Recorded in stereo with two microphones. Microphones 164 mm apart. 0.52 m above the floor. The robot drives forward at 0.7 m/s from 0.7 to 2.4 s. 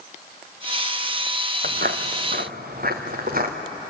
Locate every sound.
1.6 s footsteps: 60° right (ahead or behind), 1.5 m